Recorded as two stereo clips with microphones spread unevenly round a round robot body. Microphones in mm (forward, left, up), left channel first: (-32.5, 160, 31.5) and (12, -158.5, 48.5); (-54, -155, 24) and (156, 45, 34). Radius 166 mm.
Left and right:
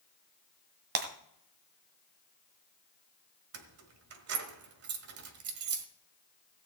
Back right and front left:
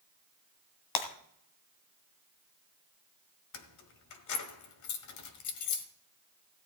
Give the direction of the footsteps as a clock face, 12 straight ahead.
I don't hear footsteps.